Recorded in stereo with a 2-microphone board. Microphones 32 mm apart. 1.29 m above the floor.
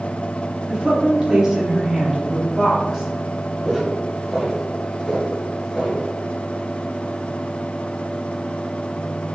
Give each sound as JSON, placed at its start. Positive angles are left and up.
{"t": 0.7, "sound": "a woman speaking", "side_deg": -35, "distance_m": 2.5}
{"t": 3.6, "sound": "footsteps", "side_deg": 0, "distance_m": 2.0}